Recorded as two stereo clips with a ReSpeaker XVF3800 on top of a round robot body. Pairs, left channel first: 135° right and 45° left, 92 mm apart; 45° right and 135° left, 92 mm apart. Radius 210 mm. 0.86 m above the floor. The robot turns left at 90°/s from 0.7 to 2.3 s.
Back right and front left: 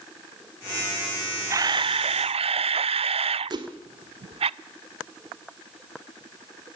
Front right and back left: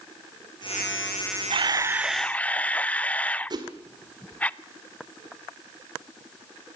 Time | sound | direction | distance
1.5 | a camera shutter | 105° left | 0.5 m
3.5 | a whoosh | 90° left | 1.6 m